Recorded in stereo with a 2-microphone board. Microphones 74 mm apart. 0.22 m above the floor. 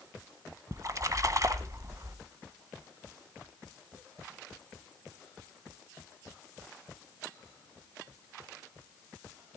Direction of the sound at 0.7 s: 45° right (ahead or behind).